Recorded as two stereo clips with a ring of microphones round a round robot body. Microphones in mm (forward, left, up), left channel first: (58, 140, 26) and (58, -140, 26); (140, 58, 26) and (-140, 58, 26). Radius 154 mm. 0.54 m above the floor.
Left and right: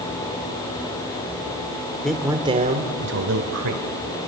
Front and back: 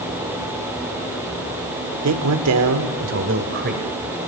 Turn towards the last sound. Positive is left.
turn(degrees=-120)